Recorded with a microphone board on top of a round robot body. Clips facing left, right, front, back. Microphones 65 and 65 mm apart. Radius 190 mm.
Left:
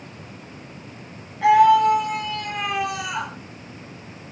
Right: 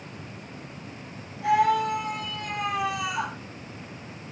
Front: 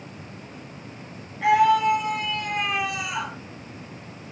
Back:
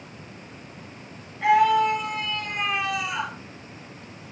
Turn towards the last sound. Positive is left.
turn(degrees=80)